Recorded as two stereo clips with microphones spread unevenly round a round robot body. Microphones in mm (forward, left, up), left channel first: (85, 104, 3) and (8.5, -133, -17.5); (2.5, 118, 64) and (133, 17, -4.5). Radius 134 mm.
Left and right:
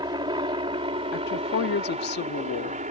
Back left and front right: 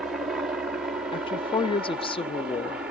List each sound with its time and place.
0.0 s a helicopter: 60° right; by 2.9 s 75° right
1.1 s a woman speaking: 70° left